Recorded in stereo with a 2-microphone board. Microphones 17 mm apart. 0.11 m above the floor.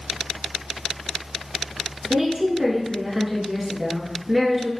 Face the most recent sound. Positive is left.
turn(degrees=-15)  # may be behind; listen again after turning